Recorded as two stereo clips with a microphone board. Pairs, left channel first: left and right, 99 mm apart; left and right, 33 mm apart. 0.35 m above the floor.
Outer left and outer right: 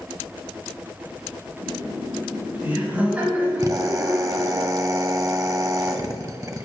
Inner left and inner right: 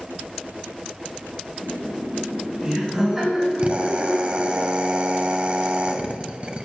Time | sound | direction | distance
1.6 | laughter | 30° right (ahead or behind) | 3.5 m
3.6 | a drill | 40° right (ahead or behind) | 0.7 m